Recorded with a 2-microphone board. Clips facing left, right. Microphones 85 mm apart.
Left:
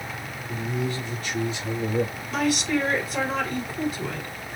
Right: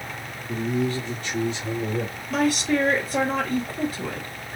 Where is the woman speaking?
40° right (ahead or behind), 3 m.